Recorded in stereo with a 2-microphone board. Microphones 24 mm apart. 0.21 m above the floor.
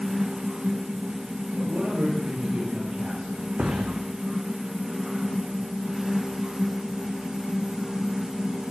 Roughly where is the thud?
Right.